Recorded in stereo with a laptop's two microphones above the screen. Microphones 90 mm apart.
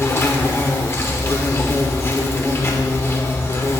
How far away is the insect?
About 1.2 m.